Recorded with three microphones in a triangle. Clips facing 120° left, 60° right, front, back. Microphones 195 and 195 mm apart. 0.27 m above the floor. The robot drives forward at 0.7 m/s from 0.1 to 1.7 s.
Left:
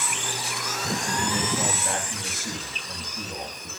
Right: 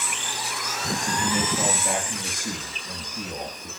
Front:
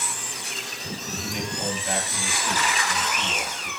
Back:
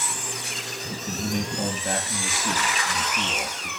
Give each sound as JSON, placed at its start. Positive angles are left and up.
{"t": 1.1, "sound": "a man speaking", "azimuth_deg": -130, "distance_m": 5.0}